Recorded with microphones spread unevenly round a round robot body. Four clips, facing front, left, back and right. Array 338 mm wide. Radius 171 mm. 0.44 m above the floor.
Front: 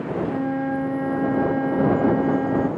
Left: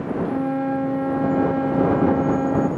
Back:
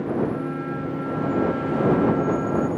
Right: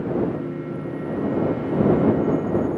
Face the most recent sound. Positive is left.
turn(degrees=60)